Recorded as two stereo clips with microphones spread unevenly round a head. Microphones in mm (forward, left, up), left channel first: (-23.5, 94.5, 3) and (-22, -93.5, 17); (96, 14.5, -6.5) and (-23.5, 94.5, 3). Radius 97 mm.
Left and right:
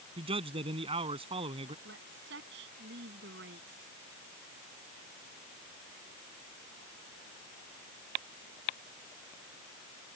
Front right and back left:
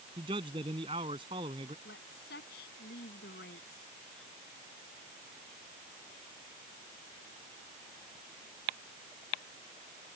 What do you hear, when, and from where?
0.2 s a man speaking: 150° right
1.9 s a woman speaking: 55° right